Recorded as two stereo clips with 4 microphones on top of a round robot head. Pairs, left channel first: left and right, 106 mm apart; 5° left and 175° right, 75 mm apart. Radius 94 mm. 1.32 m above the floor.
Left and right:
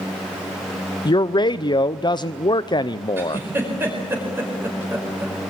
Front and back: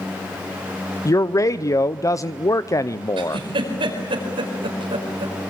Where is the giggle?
165° right, 5 m.